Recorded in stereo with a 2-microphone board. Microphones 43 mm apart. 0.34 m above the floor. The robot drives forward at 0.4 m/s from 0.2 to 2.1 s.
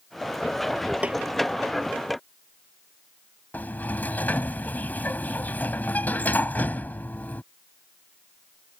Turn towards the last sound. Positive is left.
turn(degrees=40)  # may be behind; listen again after turning